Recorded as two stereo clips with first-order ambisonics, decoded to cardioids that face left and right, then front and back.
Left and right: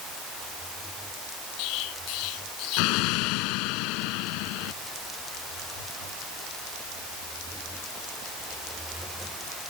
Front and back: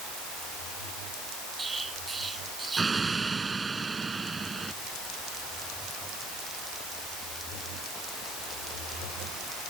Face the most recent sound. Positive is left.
turn(degrees=105)